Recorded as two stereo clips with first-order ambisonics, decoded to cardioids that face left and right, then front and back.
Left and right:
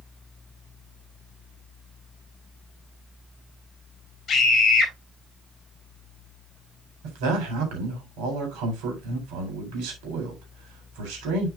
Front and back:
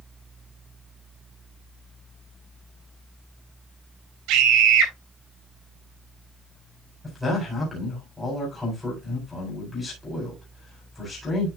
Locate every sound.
4.3 s a scream: 155° left, 3.5 m
7.0 s a man speaking: 85° right, 3.5 m